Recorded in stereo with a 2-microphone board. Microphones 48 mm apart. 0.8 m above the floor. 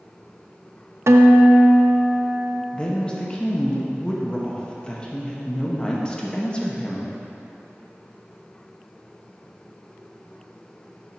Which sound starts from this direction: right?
A guitar, at 1.1 s.